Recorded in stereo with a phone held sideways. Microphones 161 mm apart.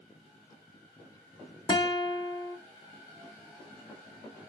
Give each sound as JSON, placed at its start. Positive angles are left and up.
{"t": 1.7, "sound": "a guitar", "side_deg": 30, "distance_m": 1.2}